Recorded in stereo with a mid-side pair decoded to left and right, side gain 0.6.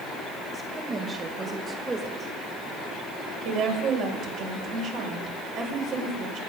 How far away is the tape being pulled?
I don't hear tape being pulled.